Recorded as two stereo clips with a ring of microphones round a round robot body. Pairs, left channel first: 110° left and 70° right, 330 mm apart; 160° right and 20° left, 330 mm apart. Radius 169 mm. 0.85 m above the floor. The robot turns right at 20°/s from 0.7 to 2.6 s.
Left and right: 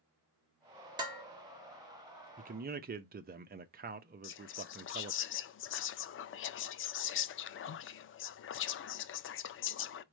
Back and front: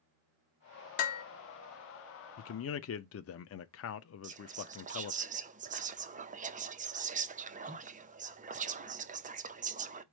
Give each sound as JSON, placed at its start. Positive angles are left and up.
{"t": 1.0, "sound": "dishes clattering", "azimuth_deg": -145, "distance_m": 1.1}
{"t": 2.4, "sound": "a man speaking", "azimuth_deg": -130, "distance_m": 0.5}
{"t": 4.2, "sound": "whispering", "azimuth_deg": 80, "distance_m": 0.5}